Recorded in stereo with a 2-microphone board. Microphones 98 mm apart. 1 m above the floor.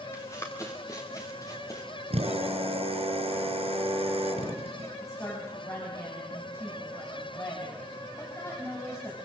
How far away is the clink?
I don't hear a clink.